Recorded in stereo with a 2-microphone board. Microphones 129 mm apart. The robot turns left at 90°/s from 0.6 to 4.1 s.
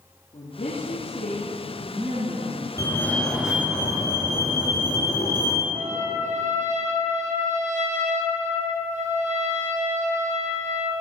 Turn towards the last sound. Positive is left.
turn(degrees=-75)  # may be behind; listen again after turning